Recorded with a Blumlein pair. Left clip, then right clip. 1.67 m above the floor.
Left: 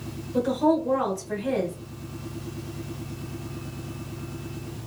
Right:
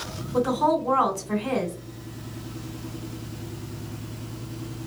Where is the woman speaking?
65° right, 1.4 m.